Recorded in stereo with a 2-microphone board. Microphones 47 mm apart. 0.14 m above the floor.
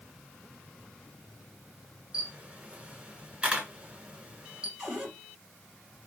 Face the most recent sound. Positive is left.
turn(degrees=-25)  # may be behind; listen again after turning